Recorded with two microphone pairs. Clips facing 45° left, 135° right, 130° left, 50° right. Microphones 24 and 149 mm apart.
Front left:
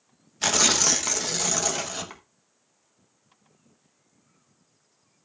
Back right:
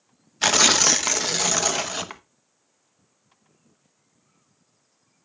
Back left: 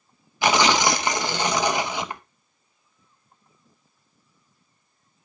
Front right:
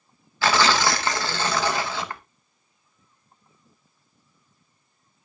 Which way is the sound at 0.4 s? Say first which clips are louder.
Back right 4 dB, back left 1 dB; 175° left.